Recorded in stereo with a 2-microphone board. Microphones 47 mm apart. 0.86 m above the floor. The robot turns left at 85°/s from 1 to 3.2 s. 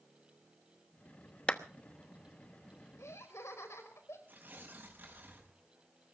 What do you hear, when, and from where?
1.5 s a clap: 25° left (ahead or behind), 1.0 m; by 1.6 s 15° left (ahead or behind), 1.0 m
3.0 s laughter: 80° left, 4.5 m; by 4.2 s 70° left (ahead or behind), 4.5 m
4.3 s tearing paper: 40° right (ahead or behind), 5.5 m